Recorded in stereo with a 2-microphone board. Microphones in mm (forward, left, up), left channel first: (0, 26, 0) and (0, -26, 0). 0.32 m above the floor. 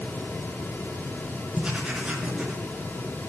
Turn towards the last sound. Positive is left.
turn(degrees=-20)  # may be behind; listen again after turning